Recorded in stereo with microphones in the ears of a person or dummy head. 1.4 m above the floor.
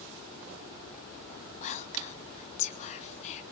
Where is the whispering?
40° left (ahead or behind), 2.5 m.